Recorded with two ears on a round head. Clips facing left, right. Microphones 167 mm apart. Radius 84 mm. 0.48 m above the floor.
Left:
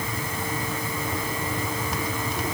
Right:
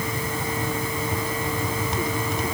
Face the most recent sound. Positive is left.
No sound to turn to.